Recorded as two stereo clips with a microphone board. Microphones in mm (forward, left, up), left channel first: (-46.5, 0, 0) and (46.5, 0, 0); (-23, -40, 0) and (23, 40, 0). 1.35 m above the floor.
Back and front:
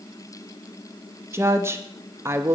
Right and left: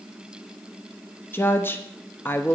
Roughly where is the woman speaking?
Ahead right.